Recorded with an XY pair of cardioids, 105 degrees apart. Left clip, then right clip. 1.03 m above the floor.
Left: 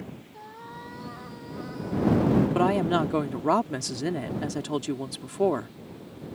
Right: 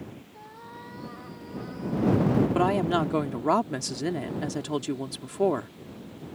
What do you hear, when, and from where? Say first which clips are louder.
0.3 s a cat meowing: left 3 dB; 15° left
2.5 s a woman speaking: right 1 dB; straight ahead